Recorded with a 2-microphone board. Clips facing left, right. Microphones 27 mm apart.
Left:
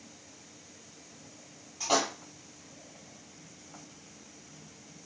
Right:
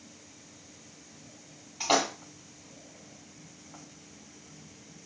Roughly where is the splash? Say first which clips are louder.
Right 2 dB; right.